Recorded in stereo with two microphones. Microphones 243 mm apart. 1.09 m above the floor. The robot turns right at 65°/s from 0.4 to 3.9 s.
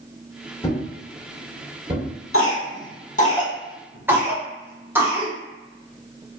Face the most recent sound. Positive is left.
turn(degrees=-10)  # may be behind; listen again after turning